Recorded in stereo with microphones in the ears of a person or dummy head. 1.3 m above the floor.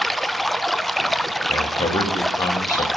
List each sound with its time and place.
0.0 s running water: 5° left (ahead or behind), 1.0 m
1.5 s a man speaking: 20° left (ahead or behind), 4 m